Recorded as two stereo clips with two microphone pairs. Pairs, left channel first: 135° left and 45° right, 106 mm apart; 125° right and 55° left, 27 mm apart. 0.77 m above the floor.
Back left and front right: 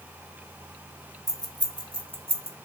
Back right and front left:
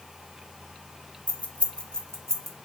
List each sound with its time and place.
1.3 s keys jangling: 95° right, 1.1 m; by 2.5 s 50° right, 1.1 m